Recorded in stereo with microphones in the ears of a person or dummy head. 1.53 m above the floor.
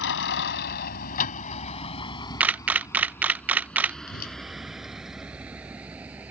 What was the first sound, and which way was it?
A vehicle, 70° left (ahead or behind).